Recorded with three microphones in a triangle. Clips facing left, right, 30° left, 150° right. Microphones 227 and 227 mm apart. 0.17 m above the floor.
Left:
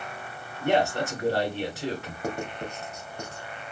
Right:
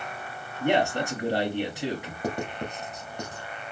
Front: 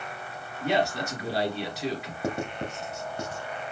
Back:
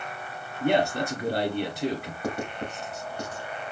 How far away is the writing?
About 1.0 m.